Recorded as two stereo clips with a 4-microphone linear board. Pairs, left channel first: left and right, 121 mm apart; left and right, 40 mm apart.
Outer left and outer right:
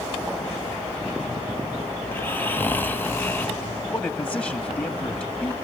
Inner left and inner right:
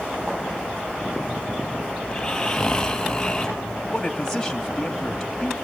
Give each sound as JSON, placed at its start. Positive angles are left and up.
{"t": 2.0, "sound": "snoring", "side_deg": 15, "distance_m": 0.9}
{"t": 3.9, "sound": "a man speaking", "side_deg": 10, "distance_m": 1.3}